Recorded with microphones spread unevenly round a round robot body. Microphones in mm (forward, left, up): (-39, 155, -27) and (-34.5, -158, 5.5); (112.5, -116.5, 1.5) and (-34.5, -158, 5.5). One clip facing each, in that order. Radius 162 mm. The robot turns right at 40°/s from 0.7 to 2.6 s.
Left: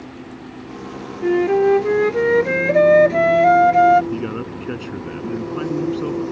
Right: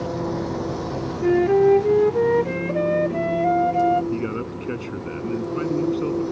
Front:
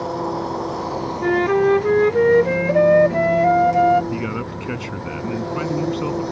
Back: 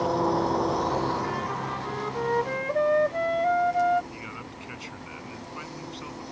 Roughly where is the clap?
No clap in this recording.